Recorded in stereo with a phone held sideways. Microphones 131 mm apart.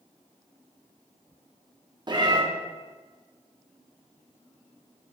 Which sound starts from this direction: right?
A cat meowing, at 2.1 s.